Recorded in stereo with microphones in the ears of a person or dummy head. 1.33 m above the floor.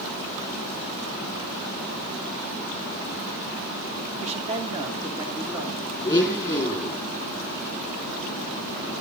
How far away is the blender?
About 5.5 m.